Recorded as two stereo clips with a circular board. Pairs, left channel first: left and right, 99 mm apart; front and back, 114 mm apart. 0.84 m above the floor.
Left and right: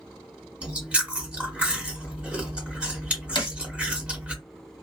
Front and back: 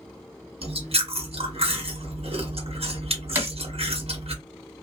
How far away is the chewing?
About 1.0 m.